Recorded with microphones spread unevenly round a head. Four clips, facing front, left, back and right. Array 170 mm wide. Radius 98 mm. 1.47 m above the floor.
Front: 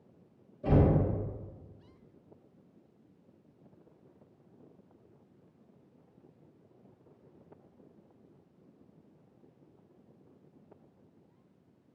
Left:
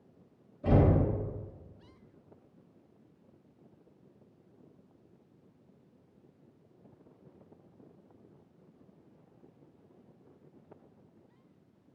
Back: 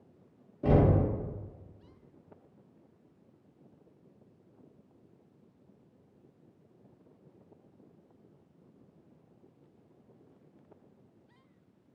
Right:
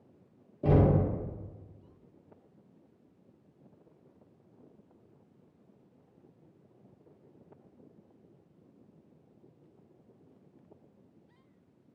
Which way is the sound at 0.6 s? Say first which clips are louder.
Right 1 dB, back 1 dB; 125° right.